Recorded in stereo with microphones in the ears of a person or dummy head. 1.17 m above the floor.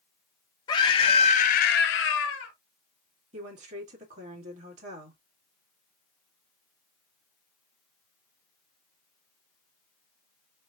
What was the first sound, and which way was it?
A scream, 25° left (ahead or behind).